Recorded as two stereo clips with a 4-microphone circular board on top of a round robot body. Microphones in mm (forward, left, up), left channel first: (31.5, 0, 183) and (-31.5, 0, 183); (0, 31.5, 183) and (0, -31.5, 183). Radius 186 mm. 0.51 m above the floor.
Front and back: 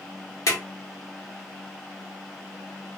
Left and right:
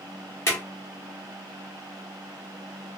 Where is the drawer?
40° left, 0.9 m.